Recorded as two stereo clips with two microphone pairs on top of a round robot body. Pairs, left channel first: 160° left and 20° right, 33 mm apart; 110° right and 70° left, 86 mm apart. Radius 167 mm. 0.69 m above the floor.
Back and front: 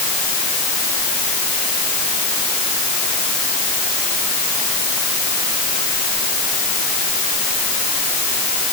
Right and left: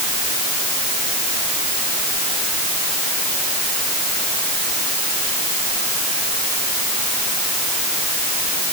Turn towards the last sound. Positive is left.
No sound to turn to.